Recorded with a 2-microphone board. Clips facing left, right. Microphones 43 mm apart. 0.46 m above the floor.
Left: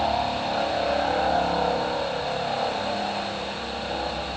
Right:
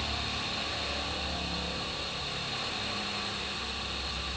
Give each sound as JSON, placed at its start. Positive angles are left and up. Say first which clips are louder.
{"t": 0.0, "sound": "a helicopter", "louder": "left 11 dB", "side_deg": 60}